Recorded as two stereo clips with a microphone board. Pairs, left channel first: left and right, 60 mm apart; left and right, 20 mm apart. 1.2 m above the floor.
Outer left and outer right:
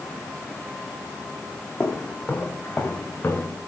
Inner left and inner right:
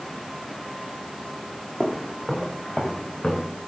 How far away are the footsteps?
About 3 m.